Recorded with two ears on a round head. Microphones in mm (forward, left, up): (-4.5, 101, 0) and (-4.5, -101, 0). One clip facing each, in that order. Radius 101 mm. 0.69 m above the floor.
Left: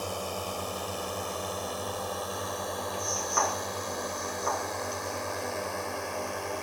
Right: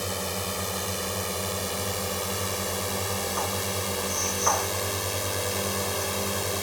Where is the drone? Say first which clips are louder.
Right 2 dB; 30° right (ahead or behind); by 6.6 s 55° right (ahead or behind).